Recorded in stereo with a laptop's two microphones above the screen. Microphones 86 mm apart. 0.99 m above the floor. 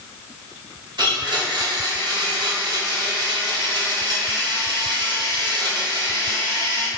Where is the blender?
50° right (ahead or behind), 1.0 m.